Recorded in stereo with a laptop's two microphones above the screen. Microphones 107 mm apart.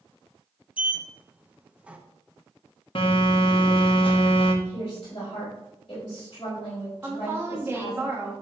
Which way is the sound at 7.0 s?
25° right (ahead or behind).